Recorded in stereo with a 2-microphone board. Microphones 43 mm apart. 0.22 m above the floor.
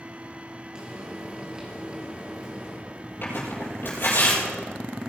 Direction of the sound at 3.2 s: 60° left (ahead or behind).